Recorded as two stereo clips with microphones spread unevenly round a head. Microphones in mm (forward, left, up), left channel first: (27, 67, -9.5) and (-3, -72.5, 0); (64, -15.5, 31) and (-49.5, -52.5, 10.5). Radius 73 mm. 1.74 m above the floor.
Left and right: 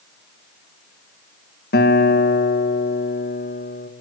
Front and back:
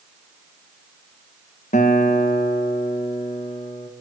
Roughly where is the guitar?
Ahead left.